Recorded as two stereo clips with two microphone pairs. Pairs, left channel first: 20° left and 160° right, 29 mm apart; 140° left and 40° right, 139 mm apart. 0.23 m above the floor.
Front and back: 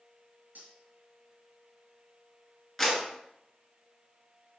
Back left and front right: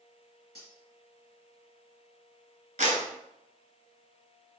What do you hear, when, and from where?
0.6 s cutlery clinking: 155° right, 3 m
2.8 s a clap: 65° right, 2.5 m